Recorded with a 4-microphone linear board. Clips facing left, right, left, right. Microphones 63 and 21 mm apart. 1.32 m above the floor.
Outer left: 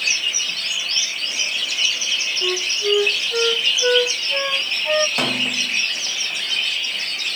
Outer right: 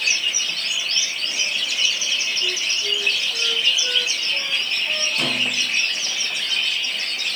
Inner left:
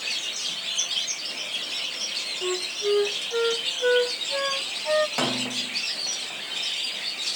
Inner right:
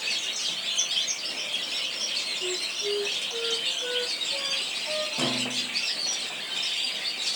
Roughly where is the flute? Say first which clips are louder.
Outer left 4 dB, inner left 3 dB; left.